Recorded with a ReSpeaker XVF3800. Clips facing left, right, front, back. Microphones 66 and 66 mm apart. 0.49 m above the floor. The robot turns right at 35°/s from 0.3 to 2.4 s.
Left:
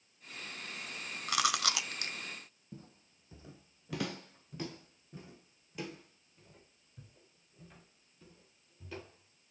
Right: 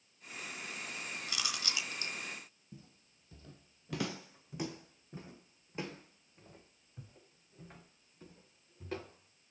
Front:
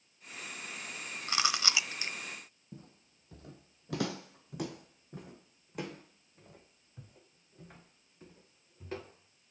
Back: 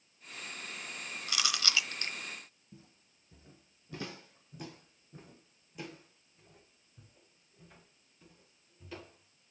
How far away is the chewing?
About 1.0 m.